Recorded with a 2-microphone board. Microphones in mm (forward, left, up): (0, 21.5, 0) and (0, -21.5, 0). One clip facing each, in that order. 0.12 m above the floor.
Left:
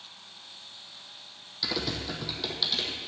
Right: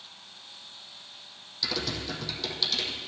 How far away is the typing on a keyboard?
About 1.5 m.